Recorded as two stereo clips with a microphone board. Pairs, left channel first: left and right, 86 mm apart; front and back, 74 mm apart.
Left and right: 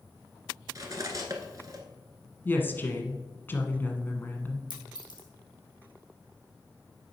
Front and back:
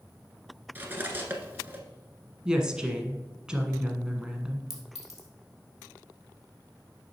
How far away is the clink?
About 2.5 m.